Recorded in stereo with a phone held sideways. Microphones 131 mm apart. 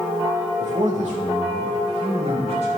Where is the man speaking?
65° right (ahead or behind), 1.7 m; by 2.7 s 60° right (ahead or behind), 3 m.